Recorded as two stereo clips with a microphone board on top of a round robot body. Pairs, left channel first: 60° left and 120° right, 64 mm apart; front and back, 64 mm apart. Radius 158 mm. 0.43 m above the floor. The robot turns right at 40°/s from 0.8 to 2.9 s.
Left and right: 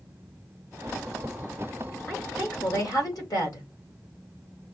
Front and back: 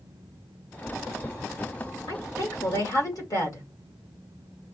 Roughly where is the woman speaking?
Ahead.